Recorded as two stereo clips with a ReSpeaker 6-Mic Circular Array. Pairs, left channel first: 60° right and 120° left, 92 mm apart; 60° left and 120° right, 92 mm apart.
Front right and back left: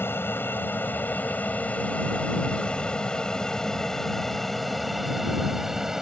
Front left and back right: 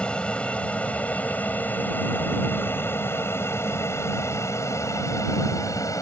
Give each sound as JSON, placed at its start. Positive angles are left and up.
{"t": 0.0, "sound": "an aircraft", "azimuth_deg": -10}